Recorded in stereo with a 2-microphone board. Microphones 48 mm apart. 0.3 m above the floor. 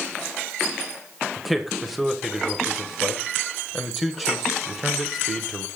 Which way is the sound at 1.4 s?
5° right (ahead or behind).